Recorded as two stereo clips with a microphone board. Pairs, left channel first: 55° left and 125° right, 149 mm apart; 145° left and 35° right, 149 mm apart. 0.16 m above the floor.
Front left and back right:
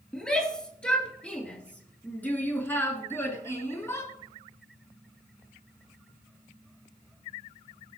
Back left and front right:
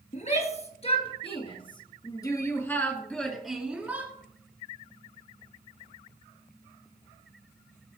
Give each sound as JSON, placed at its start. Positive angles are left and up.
{"t": 0.1, "sound": "a shout", "azimuth_deg": 140, "distance_m": 2.5}